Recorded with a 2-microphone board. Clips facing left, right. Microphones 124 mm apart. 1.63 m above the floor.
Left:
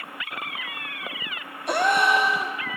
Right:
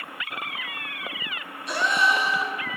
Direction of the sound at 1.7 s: 60° left (ahead or behind).